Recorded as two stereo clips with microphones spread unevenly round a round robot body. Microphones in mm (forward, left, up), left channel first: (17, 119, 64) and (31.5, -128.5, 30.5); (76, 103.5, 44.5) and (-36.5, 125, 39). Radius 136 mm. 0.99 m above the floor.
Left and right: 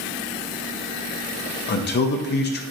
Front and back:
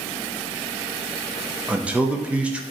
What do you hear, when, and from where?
1.7 s a man speaking: 105° left, 0.6 m